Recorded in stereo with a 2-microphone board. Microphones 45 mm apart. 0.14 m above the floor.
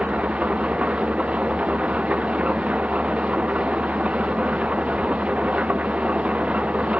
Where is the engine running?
30° right (ahead or behind).